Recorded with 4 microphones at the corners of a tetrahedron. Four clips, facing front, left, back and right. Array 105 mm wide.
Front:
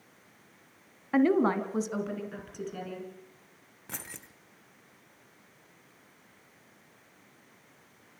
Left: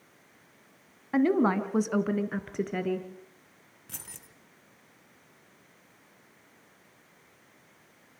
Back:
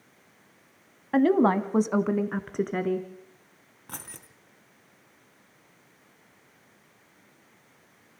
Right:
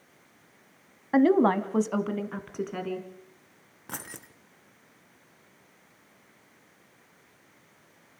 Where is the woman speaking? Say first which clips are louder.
Right 3 dB, back 3 dB; 115° right, 1.1 m; by 3.1 s 175° left, 2.5 m.